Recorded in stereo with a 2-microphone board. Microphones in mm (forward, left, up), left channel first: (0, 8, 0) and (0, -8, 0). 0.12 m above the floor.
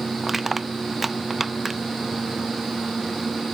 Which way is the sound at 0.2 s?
10° right (ahead or behind).